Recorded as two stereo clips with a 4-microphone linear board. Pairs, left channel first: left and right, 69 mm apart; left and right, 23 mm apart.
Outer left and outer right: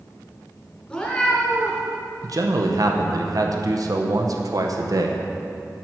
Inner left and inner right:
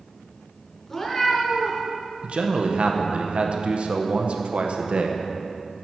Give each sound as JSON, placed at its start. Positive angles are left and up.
{"t": 0.9, "sound": "a cat meowing", "side_deg": 15, "distance_m": 2.5}
{"t": 2.2, "sound": "a man speaking", "side_deg": -60, "distance_m": 0.8}